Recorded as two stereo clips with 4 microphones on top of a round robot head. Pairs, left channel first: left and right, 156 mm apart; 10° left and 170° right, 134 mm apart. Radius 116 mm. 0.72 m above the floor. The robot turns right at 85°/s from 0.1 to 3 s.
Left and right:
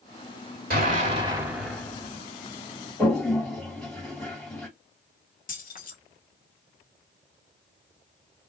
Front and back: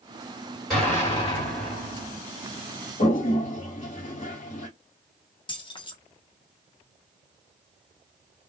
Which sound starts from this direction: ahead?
A toilet flushing, at 3.0 s.